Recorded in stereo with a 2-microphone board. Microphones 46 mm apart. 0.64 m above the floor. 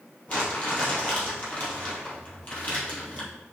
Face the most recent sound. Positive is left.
turn(degrees=35)  # may be behind; listen again after turning